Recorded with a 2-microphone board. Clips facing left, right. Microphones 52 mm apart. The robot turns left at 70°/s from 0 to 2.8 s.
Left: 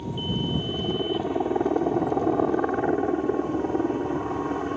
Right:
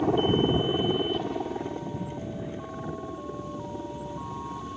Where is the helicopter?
105° right; by 4.8 s 55° left.